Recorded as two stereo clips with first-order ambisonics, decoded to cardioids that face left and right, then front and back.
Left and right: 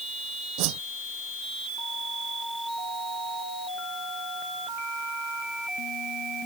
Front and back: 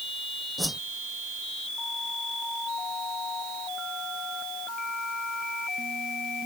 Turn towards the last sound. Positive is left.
turn(degrees=-90)